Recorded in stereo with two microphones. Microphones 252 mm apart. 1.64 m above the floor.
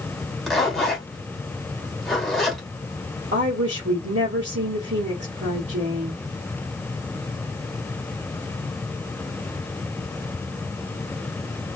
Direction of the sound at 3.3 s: 55° right (ahead or behind).